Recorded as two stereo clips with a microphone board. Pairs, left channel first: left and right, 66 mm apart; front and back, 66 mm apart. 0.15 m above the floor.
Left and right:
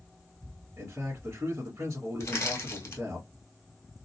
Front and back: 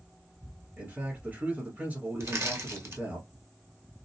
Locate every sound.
0.8 s a man speaking: 130° right, 1.2 m
2.2 s crushing: 135° left, 1.0 m